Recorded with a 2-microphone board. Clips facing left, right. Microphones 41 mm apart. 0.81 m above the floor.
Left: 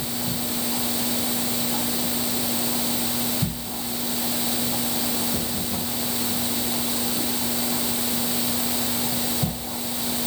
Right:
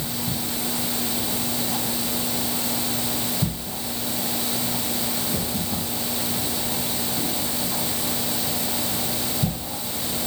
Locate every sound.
Only background noise.